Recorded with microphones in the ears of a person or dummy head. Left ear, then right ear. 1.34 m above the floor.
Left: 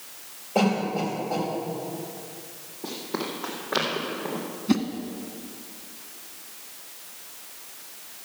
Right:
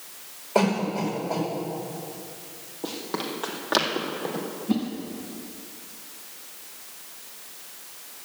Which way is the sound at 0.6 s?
55° right (ahead or behind).